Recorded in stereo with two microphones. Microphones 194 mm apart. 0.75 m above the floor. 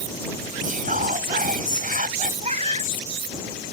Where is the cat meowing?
35° right (ahead or behind).